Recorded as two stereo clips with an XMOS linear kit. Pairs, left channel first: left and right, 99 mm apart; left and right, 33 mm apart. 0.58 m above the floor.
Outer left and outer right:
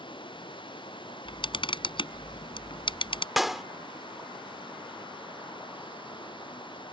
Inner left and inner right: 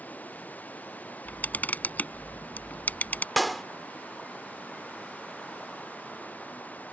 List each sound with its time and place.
0.0 s running water: 60° left (ahead or behind)
1.2 s a camera shutter: 60° left (ahead or behind)
3.4 s a clap: centre (ahead or behind)